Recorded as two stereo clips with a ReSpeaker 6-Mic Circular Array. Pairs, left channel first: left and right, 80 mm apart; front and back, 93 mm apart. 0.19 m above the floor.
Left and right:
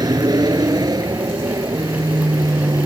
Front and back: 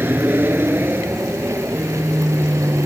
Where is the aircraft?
115° right; by 2.9 s 120° right.